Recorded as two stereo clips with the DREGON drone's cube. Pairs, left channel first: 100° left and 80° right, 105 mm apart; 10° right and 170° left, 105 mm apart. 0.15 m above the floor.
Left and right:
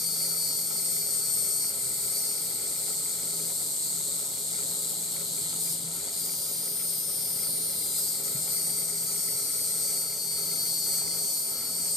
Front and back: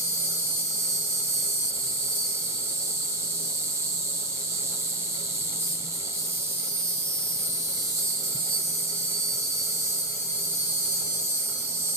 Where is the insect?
170° right, 0.8 m.